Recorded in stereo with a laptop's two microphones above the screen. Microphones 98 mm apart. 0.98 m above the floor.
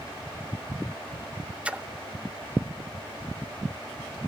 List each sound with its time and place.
1.6 s a splash: 10° right (ahead or behind), 0.6 m